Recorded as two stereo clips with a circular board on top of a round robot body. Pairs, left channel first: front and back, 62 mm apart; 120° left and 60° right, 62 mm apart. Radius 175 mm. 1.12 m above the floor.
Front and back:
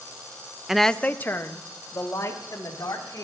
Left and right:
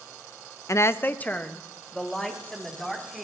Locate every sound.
0.7 s a woman speaking: 100° left, 0.6 m; by 3.2 s 35° left, 3 m